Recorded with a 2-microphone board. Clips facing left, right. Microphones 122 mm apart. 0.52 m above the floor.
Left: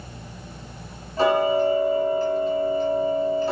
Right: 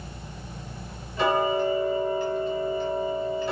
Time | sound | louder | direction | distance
1.2 | ticking | left 4 dB | 35° left (ahead or behind) | 1.1 m